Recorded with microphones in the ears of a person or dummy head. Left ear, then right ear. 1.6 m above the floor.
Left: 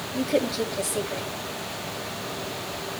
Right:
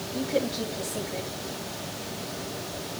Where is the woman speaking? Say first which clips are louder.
Left 3 dB; 65° left (ahead or behind), 3.5 m.